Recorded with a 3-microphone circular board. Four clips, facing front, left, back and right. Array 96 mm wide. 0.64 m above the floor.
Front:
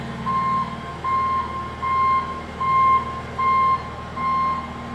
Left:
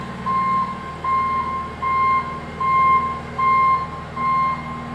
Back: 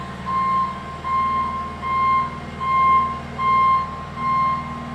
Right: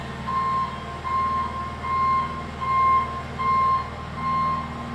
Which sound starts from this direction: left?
An engine running, at 0.0 s.